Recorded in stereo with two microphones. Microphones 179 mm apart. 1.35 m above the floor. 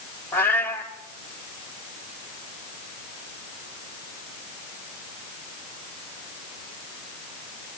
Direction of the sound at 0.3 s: 10° left (ahead or behind).